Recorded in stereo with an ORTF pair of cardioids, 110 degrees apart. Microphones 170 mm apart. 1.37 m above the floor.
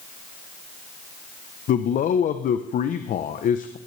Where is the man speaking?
50° left, 0.8 m.